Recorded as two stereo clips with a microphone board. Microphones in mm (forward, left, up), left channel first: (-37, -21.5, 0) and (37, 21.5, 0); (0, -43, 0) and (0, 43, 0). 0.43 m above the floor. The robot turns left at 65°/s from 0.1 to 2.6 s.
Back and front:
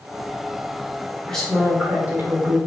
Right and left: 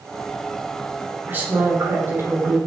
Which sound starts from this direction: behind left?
A woman speaking, at 1.3 s.